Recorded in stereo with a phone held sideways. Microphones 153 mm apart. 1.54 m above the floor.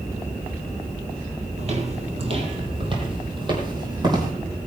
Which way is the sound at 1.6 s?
45° right (ahead or behind).